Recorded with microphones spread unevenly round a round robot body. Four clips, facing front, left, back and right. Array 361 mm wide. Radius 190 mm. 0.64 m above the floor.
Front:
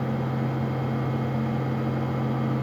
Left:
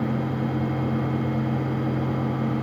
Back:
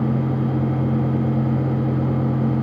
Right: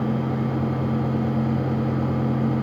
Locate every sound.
Only background noise.